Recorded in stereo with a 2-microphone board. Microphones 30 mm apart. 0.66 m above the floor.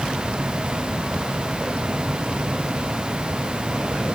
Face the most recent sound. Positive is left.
No sound to turn to.